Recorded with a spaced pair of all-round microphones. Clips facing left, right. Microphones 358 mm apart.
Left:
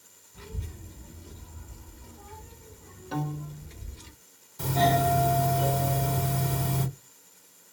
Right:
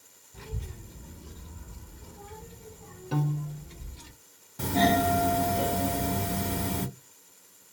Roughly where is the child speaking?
Right.